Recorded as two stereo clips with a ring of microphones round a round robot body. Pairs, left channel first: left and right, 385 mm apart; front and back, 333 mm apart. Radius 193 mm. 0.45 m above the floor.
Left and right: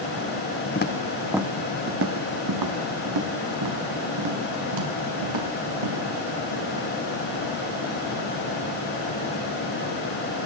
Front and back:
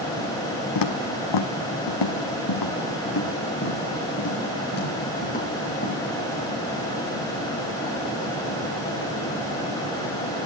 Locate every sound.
0.8 s footsteps: 25° left, 1.5 m; by 6.0 s 70° right, 6 m